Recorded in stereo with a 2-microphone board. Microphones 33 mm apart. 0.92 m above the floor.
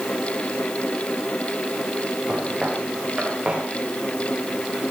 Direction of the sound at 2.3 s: 40° right (ahead or behind).